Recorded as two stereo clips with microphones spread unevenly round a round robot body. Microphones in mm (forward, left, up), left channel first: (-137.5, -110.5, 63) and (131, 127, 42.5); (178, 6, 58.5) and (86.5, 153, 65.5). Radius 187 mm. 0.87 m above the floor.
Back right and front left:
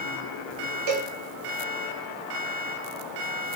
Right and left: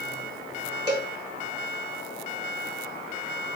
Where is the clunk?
I don't hear a clunk.